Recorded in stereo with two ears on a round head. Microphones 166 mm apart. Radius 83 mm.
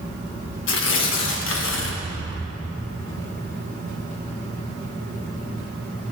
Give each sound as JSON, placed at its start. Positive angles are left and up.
{"t": 0.7, "sound": "tearing paper", "side_deg": 75, "distance_m": 1.5}